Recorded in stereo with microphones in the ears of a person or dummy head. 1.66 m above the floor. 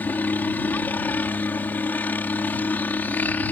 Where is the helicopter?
15° left (ahead or behind).